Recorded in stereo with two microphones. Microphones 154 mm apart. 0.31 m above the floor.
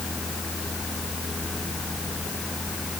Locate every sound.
Only background noise.